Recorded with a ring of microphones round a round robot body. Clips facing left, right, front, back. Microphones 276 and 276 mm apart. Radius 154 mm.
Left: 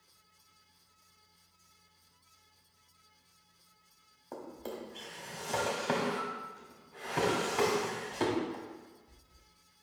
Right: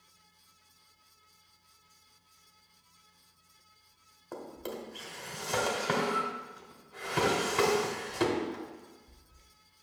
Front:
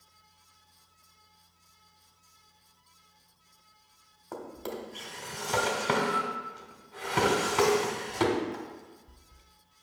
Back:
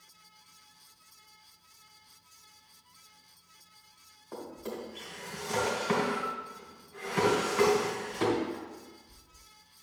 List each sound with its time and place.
4.3 s a drawer: 15° right, 1.6 m